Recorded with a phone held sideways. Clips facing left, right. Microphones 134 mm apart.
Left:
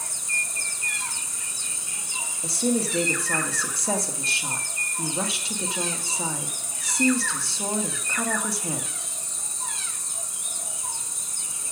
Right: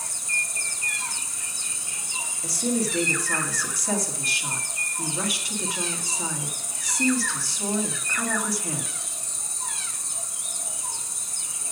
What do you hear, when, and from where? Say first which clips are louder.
0.0 s an insect: even; 20° left (ahead or behind), 4 m
2.4 s a woman speaking: left 1 dB; 25° left (ahead or behind), 1.4 m